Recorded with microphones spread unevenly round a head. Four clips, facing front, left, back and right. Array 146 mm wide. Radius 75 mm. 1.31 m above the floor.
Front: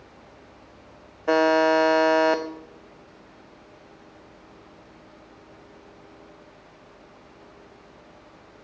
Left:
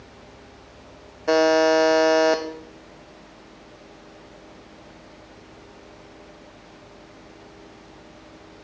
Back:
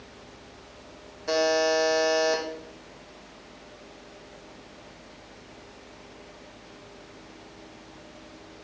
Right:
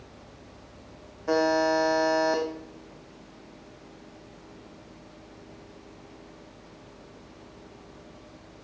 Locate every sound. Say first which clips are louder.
1.3 s a buzzer: left 6 dB, front 5 dB; 60° left, 0.6 m